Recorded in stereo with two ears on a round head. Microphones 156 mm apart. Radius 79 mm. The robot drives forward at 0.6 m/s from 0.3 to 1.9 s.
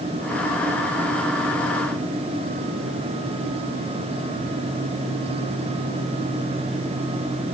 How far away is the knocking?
I don't hear knocking.